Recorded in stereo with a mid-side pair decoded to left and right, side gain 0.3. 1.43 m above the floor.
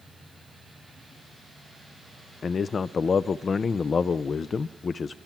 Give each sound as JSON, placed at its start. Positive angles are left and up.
{"t": 2.4, "sound": "a man speaking", "azimuth_deg": 60, "distance_m": 0.6}